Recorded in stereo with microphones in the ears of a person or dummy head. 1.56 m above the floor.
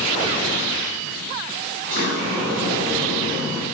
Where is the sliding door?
60° right (ahead or behind), 3 m.